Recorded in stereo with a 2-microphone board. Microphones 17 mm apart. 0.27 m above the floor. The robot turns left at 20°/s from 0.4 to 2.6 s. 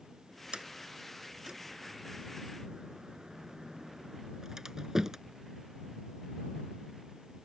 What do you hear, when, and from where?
0.5 s a sliding door: 80° right; by 5.2 s 40° right (ahead or behind)